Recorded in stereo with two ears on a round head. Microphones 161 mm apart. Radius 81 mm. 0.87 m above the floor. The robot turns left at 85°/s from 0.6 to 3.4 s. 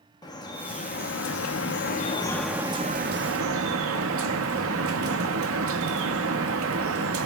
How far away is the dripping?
About 0.8 m.